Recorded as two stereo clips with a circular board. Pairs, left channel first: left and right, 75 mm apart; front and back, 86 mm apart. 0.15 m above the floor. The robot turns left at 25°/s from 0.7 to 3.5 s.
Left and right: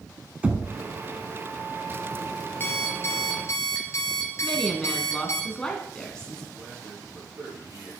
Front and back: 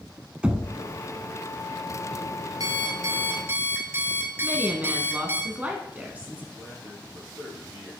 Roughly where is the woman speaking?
Behind left.